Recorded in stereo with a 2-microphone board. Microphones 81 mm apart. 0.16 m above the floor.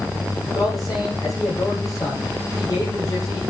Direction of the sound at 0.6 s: 45° left (ahead or behind).